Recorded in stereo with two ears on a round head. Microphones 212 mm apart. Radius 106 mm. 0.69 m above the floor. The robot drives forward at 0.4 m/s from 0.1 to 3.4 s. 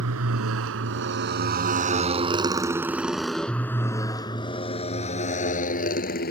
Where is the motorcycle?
70° right (ahead or behind); by 6.3 s 40° left (ahead or behind).